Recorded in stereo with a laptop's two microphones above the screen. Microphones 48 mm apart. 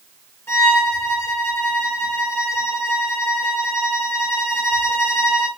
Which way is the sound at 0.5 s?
65° left (ahead or behind).